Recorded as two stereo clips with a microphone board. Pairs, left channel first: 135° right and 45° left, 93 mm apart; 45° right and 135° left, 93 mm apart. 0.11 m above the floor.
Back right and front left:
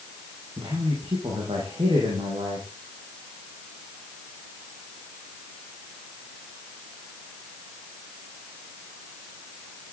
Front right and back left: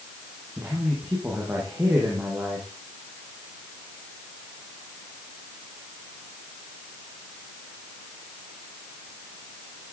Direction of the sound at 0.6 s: 65° left.